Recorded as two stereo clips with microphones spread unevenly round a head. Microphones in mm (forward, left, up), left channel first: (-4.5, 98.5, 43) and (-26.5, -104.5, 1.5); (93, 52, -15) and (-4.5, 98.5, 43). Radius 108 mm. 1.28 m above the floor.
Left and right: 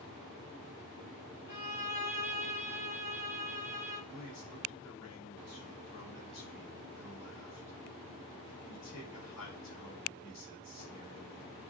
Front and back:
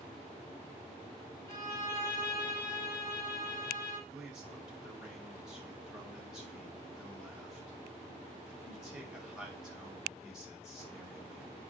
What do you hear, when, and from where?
1.5 s a violin: 40° left, 6 m
4.1 s a man speaking: 70° left, 5.5 m